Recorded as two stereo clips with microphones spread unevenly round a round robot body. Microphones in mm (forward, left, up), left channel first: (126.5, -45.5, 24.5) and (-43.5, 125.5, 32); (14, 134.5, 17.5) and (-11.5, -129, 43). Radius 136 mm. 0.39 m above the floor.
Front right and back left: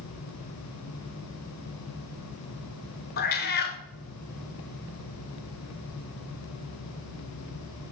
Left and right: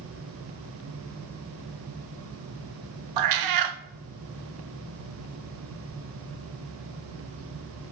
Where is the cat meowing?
105° right, 0.7 m.